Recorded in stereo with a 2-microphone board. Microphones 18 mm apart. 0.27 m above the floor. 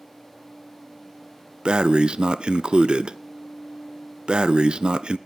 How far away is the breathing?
About 0.5 m.